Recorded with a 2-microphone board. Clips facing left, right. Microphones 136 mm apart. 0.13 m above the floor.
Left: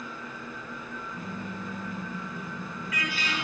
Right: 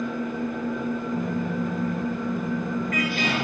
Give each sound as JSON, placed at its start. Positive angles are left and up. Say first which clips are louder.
{"t": 0.0, "sound": "an engine running", "louder": "right 13 dB", "side_deg": -65, "distance_m": 1.6}
{"t": 1.1, "sound": "a car horn", "louder": "right 11 dB", "side_deg": -50, "distance_m": 6.5}